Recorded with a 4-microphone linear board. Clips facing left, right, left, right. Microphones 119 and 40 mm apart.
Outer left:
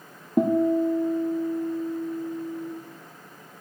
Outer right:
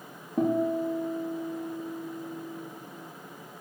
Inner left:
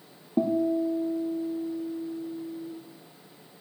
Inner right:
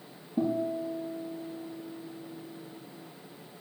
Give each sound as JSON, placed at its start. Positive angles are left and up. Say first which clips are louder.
{"t": 0.4, "sound": "a guitar", "louder": "outer left 5 dB, inner left 5 dB", "side_deg": 80, "distance_m": 4.0}